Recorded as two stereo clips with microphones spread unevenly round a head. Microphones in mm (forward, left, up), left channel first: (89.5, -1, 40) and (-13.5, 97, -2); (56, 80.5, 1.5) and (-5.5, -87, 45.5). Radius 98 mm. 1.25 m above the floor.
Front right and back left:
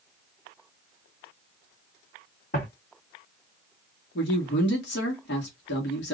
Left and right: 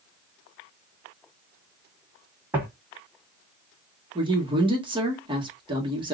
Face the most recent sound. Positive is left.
turn(degrees=-40)